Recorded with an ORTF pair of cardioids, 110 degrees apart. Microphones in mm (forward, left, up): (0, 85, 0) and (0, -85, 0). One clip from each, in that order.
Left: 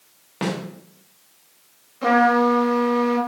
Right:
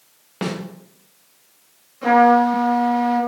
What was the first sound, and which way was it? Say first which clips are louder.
A snare drum: left 1 dB; 5° right.